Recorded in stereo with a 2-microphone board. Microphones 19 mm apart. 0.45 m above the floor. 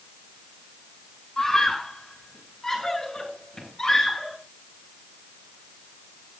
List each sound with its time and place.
1.4 s a scream: 30° left (ahead or behind), 7 m; by 4.4 s 25° left (ahead or behind), 8.5 m